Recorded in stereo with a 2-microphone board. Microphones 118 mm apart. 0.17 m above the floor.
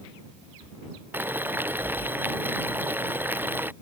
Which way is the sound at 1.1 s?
15° right (ahead or behind).